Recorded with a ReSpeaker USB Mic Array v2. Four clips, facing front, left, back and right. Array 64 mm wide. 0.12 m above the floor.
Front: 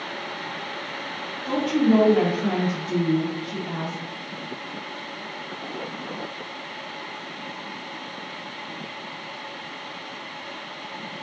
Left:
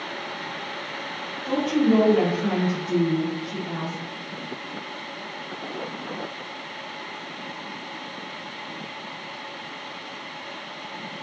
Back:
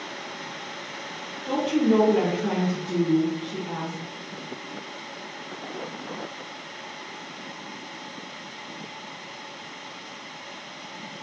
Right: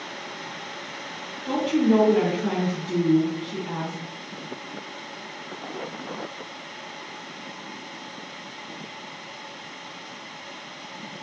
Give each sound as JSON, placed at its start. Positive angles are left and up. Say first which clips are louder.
{"t": 1.4, "sound": "a woman speaking", "louder": "even, front 1 dB", "azimuth_deg": -80, "distance_m": 1.7}